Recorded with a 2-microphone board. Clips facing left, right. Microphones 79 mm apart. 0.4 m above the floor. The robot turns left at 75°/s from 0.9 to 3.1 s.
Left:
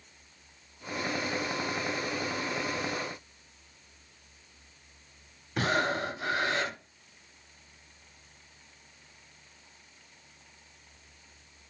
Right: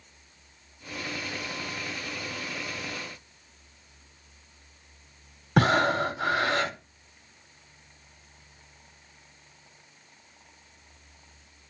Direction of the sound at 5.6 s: 70° right (ahead or behind).